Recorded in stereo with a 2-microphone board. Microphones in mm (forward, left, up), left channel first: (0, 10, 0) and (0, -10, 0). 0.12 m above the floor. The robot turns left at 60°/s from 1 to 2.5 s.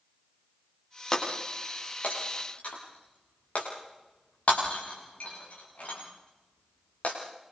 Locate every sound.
1.1 s breaking glass: 10° left (ahead or behind), 9 m; by 7.2 s 85° left, 9 m